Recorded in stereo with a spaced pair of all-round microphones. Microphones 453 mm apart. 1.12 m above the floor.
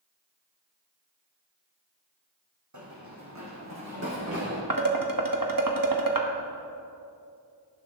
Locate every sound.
2.7 s running footsteps: 40° right (ahead or behind), 3 m; by 4.6 s 30° right (ahead or behind), 4.5 m
4.7 s dishes clattering: 45° right (ahead or behind), 1.4 m